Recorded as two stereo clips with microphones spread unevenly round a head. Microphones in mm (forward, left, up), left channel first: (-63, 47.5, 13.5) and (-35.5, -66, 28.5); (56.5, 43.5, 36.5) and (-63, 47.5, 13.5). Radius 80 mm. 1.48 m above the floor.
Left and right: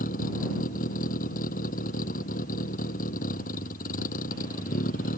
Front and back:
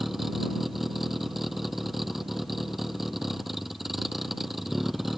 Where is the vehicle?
90° left.